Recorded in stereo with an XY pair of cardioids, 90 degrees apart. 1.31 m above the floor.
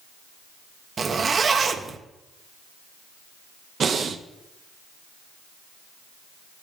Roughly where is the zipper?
Ahead right.